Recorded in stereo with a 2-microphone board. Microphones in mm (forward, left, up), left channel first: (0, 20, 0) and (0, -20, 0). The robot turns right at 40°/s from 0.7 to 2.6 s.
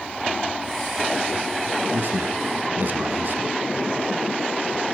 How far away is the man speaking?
About 1.9 m.